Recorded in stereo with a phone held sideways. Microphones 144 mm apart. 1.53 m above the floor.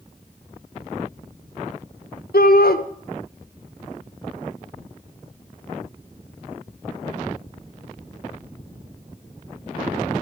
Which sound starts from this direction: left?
A shout, at 2.3 s.